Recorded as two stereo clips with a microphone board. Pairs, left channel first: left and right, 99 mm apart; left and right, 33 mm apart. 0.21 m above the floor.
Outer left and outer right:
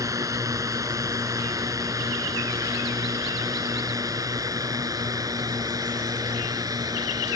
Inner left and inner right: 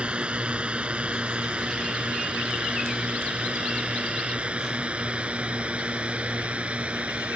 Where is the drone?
35° right (ahead or behind); by 7.4 s 40° right (ahead or behind).